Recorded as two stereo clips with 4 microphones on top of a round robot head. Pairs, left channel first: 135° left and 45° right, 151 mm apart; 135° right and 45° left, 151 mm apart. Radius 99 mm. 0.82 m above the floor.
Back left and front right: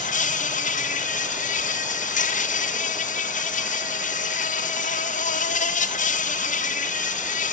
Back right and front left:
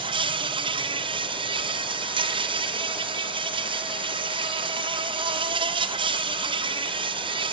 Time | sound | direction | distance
0.0 | an insect | 100° left | 1.4 m